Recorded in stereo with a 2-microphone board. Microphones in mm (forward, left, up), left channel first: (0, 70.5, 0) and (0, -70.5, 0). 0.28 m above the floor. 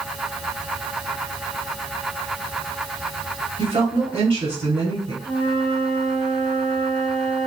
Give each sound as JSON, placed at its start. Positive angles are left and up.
{"t": 3.6, "sound": "a woman speaking", "side_deg": -35, "distance_m": 1.3}
{"t": 5.2, "sound": "a flute", "side_deg": 20, "distance_m": 1.2}